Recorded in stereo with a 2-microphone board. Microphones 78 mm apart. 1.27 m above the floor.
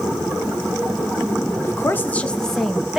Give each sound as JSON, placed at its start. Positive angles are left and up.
{"t": 1.6, "sound": "a woman speaking", "side_deg": 35, "distance_m": 1.1}